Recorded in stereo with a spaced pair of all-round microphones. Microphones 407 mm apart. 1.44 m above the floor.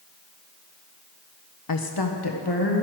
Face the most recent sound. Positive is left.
turn(degrees=70)  # may be behind; listen again after turning